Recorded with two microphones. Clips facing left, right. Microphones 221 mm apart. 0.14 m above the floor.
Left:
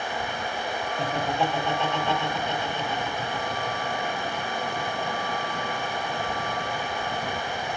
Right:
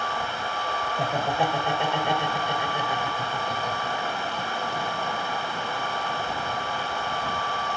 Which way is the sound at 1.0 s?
15° right (ahead or behind).